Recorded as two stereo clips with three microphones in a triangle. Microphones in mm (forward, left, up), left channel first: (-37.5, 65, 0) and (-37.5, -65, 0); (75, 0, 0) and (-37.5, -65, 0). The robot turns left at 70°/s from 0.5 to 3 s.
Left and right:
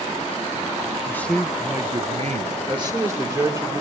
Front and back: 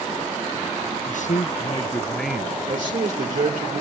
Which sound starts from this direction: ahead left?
A man speaking, at 1.1 s.